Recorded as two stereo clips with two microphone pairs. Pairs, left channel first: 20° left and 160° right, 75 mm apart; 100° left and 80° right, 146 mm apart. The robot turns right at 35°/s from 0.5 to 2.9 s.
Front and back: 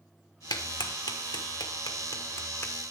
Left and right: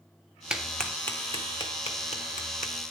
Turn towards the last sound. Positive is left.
turn(degrees=90)